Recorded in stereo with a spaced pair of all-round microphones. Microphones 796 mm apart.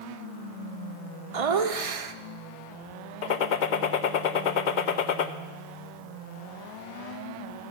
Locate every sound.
1.3 s laughter: 45° right (ahead or behind), 0.8 m
3.2 s a gunshot: 70° left (ahead or behind), 0.8 m